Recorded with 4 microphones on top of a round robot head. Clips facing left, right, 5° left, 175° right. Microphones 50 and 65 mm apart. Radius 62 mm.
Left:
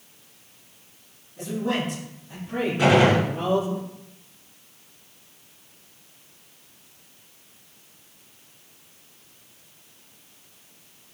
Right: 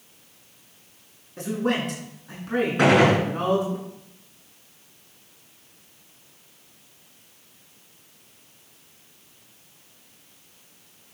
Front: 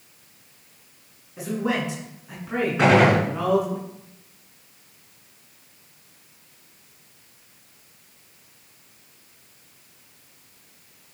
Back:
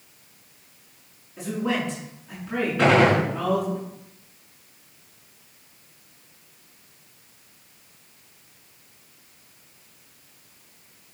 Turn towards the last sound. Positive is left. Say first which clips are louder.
# even, front 1 dB
turn(degrees=-70)